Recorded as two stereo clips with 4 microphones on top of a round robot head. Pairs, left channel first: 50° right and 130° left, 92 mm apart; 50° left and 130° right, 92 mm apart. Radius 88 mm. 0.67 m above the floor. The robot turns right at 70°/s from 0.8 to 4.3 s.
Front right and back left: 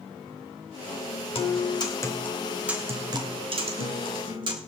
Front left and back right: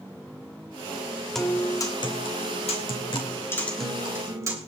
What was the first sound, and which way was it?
A guitar, 40° right.